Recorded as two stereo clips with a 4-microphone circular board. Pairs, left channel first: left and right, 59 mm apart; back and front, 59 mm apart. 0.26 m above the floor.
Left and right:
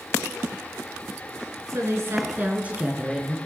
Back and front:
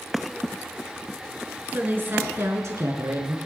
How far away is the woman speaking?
About 3 m.